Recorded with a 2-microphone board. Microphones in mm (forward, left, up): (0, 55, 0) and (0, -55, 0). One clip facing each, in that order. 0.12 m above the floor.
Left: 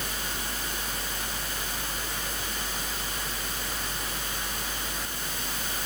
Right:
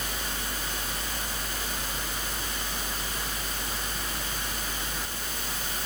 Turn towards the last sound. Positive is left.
No sound to turn to.